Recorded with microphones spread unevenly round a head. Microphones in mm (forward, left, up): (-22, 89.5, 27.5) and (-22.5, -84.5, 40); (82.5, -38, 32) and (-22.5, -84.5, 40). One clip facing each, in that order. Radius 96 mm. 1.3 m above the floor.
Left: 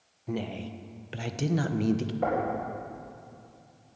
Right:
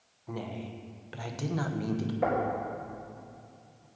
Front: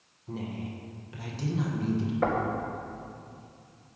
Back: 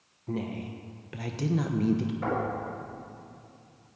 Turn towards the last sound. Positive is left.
turn(degrees=-5)